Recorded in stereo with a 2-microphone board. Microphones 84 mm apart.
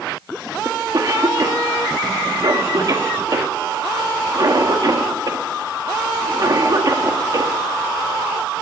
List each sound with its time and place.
0.7 s a cough: 50° right (ahead or behind), 1.7 m